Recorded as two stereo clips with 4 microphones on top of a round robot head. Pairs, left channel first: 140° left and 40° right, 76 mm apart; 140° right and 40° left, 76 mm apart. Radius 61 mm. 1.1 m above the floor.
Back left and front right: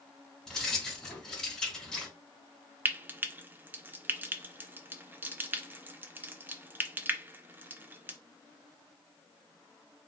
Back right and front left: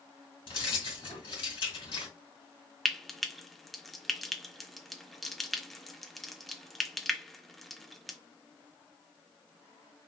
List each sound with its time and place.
0.5 s keys jangling: 140° right, 2.5 m
2.9 s frying: 55° right, 0.6 m